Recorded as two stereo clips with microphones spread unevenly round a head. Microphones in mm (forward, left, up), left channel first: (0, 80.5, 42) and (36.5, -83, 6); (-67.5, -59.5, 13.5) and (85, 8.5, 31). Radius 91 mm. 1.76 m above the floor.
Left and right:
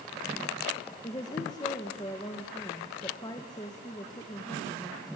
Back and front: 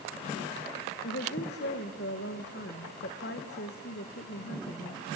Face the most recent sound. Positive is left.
turn(degrees=170)